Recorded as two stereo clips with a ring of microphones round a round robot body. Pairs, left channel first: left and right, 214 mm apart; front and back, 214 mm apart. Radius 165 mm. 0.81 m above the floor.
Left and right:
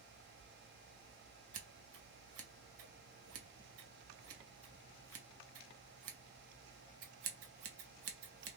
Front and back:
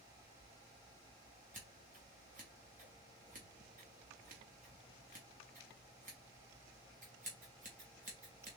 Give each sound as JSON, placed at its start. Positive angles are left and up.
{"t": 1.5, "sound": "scissors", "azimuth_deg": -115, "distance_m": 0.6}